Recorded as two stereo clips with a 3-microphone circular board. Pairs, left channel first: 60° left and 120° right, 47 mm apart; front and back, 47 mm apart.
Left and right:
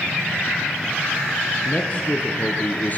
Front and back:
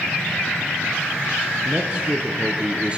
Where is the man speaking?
110° left, 6 m; by 3.0 s 115° left, 5 m.